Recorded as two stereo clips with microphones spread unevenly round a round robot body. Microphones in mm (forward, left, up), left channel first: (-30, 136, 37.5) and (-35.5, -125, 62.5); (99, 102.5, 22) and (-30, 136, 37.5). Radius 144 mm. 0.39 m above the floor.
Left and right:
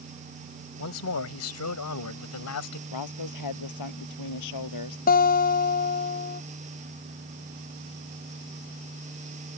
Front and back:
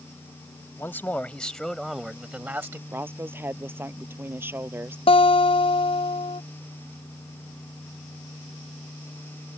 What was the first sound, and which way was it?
A man speaking, 60° left.